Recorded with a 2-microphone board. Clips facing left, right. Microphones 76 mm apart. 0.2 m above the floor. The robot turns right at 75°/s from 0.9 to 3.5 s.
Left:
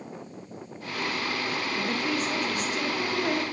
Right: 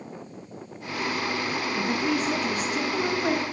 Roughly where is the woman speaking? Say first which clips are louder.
Right 4 dB; centre.